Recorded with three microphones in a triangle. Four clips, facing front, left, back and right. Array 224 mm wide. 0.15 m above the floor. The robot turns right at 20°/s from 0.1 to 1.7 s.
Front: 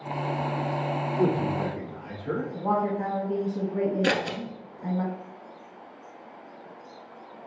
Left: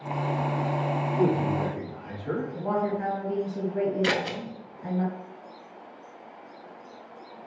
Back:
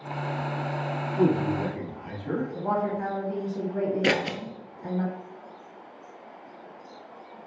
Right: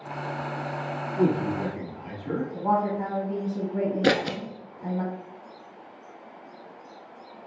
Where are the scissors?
115° right, 0.5 m.